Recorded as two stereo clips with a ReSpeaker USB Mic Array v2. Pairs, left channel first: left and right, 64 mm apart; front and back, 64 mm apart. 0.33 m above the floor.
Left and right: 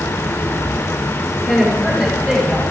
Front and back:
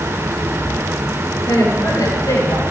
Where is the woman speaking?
Straight ahead, 7 m; by 2.6 s 5° left, 7.5 m.